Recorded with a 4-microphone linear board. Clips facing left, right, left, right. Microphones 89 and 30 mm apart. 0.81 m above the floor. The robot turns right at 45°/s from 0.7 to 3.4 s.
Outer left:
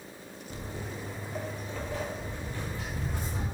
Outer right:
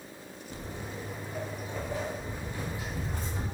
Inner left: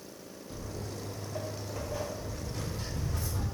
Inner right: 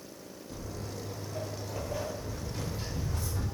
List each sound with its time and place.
0.5 s footsteps: 35° left (ahead or behind), 0.9 m; by 3.5 s 10° left (ahead or behind), 1.3 m